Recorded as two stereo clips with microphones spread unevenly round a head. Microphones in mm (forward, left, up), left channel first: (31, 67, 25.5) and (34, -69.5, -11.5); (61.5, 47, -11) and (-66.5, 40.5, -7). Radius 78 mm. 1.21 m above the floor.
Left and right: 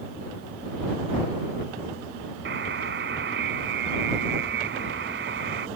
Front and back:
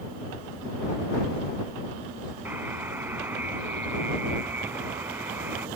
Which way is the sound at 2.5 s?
100° right.